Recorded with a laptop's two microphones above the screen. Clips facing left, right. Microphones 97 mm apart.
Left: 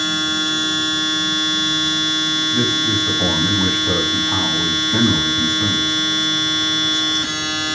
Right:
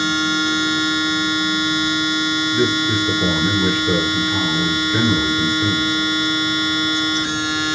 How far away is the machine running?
About 9 m.